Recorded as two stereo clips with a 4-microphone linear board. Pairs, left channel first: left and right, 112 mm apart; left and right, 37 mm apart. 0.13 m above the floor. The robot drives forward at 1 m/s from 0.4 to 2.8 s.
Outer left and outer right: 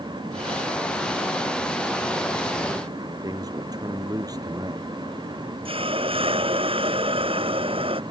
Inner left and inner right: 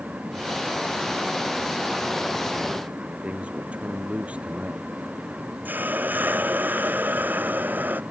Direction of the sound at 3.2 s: 35° right (ahead or behind).